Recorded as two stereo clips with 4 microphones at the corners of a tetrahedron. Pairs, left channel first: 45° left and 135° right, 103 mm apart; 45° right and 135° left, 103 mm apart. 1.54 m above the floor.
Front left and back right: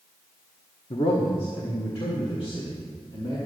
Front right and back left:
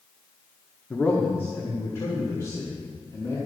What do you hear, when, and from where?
0.9 s a man speaking: 35° left, 1.2 m; by 3.4 s 10° left, 3.5 m